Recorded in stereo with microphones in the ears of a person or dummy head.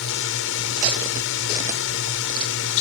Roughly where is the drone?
Left.